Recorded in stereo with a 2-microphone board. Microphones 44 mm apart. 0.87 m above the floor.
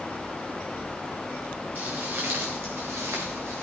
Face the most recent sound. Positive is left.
turn(degrees=-75)  # may be behind; listen again after turning